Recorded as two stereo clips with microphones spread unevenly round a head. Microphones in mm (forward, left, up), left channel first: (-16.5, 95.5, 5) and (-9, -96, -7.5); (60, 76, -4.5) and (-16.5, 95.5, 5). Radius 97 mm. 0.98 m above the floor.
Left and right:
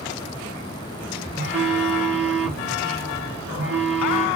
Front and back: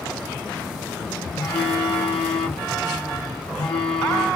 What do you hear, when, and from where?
1.4 s a phone buzzing: 60° right, 1.5 m